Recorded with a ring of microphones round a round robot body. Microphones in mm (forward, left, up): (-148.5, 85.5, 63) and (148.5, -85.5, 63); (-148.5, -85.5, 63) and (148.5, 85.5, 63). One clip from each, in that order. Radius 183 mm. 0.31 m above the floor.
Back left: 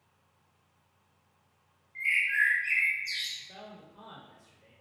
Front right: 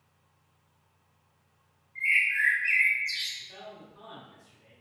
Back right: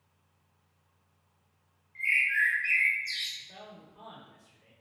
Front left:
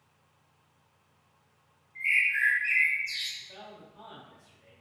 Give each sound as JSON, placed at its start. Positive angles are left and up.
{"t": 1.9, "sound": "a bird", "azimuth_deg": 140, "distance_m": 1.9}
{"t": 3.4, "sound": "a man speaking", "azimuth_deg": 140, "distance_m": 1.2}